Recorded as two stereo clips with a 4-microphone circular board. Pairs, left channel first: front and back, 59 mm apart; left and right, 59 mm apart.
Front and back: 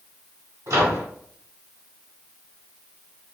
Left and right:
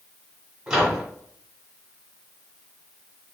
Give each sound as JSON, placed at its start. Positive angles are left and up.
{"t": 0.7, "sound": "a microwave", "azimuth_deg": -165, "distance_m": 1.3}